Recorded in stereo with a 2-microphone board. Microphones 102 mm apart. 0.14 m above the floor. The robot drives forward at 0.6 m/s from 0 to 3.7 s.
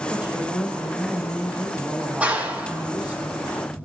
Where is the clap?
15° right (ahead or behind), 6 m.